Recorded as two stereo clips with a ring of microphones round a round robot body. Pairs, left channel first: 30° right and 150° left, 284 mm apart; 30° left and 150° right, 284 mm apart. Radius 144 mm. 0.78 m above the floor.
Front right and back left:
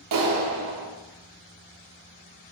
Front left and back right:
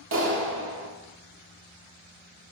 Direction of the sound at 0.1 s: 165° left.